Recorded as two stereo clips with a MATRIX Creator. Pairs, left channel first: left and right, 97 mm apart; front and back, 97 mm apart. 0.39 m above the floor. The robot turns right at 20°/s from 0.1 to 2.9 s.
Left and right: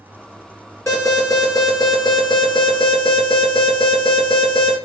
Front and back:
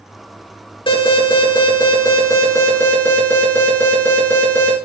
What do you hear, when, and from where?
0.9 s an alarm: 30° left, 4.5 m; by 4.8 s 70° left, 4.5 m